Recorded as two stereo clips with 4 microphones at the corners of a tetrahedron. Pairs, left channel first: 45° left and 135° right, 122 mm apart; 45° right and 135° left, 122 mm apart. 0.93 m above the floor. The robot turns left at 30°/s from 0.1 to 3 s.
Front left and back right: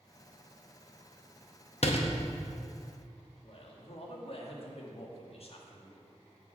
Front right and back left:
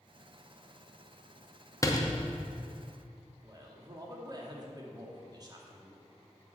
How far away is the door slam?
About 0.8 m.